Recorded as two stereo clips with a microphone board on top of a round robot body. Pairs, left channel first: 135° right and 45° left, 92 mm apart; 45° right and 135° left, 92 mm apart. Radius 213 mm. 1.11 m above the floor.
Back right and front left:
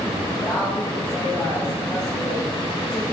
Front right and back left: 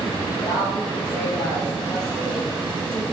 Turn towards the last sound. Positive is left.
turn(degrees=-80)